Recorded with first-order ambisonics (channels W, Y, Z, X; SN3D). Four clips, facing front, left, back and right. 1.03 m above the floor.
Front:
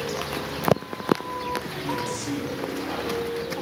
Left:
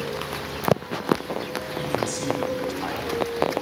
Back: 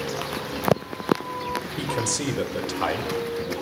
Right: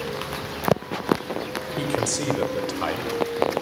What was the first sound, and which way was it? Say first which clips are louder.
A man speaking: right 2 dB, back 2 dB; 135° right.